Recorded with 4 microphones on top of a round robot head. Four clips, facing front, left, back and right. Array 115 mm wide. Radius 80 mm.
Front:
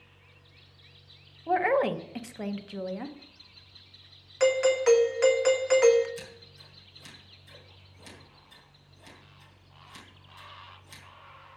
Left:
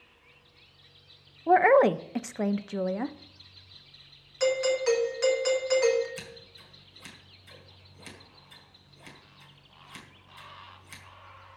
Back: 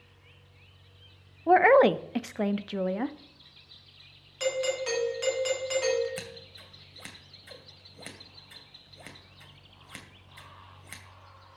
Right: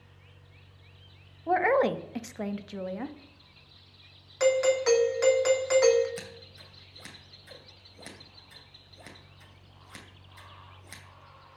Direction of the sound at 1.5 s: 150° left.